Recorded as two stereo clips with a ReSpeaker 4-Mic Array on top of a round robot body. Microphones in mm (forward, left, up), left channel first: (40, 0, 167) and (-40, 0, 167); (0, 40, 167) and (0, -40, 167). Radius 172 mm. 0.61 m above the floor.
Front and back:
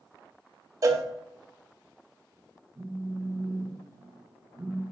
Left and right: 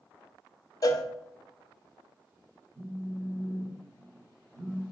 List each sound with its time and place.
0.8 s a cowbell: 135° left, 0.8 m
2.8 s a phone buzzing: 125° right, 2.5 m